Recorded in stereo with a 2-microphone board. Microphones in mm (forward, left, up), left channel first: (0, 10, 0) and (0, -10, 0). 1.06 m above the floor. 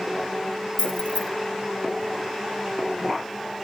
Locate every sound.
0.8 s keys jangling: 90° left, 2.5 m